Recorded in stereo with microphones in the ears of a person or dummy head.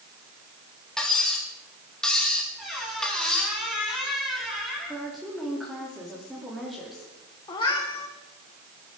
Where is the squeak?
5° right (ahead or behind), 5.5 m.